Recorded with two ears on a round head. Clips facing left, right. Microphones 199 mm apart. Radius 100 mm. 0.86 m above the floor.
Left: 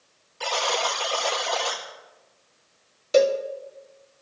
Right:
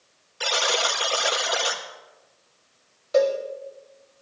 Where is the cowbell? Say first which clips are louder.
Left 1 dB; 40° left (ahead or behind), 1.0 m.